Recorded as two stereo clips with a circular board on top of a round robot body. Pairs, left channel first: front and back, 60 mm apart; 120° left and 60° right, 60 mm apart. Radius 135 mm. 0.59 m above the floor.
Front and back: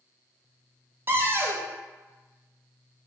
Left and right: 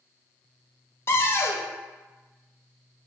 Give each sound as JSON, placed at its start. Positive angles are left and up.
{"t": 1.1, "sound": "a cupboard door", "azimuth_deg": 145, "distance_m": 0.7}